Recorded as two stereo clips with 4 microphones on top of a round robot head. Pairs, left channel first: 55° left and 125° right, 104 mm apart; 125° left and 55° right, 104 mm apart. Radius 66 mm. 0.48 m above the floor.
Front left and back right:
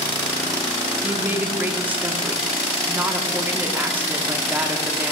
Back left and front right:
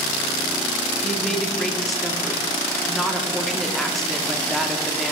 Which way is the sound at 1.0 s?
155° right.